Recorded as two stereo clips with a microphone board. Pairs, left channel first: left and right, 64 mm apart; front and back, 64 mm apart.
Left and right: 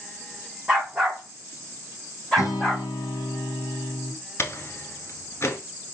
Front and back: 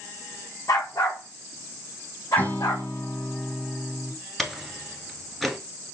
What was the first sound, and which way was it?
A dog barking, 5° right.